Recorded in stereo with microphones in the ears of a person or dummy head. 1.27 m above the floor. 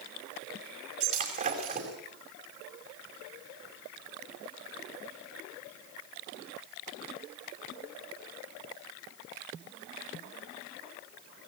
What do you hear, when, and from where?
1.0 s breaking glass: 45° right (ahead or behind), 5 m